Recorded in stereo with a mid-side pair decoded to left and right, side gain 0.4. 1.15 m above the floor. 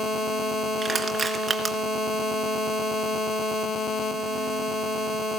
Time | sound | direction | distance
0.8 | crushing | 40° right | 3 m